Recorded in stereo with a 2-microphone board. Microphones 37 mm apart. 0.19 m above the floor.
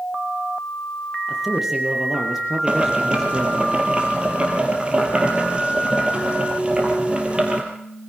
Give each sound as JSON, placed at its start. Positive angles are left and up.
{"t": 1.3, "sound": "a man speaking", "side_deg": -10, "distance_m": 4.0}
{"t": 2.7, "sound": "boiling", "side_deg": -30, "distance_m": 4.0}